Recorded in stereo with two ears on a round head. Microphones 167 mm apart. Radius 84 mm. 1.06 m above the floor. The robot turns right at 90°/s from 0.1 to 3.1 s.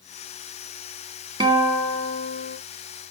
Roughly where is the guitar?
Ahead right.